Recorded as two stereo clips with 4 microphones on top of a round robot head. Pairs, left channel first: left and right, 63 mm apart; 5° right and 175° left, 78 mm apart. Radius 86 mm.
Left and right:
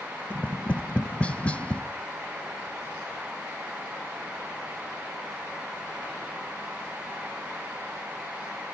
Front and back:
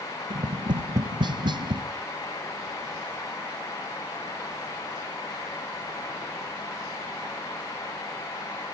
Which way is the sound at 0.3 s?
160° left.